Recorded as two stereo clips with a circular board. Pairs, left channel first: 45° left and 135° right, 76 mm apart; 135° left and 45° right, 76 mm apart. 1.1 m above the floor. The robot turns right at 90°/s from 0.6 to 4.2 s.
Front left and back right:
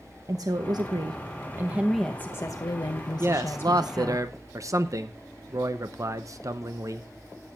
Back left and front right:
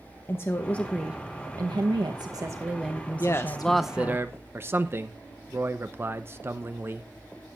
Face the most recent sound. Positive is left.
turn(degrees=-100)